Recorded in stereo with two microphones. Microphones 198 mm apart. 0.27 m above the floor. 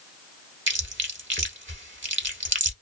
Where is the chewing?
70° right (ahead or behind), 0.8 m.